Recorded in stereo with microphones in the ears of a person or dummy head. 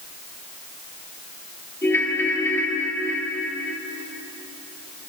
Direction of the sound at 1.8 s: 15° left (ahead or behind).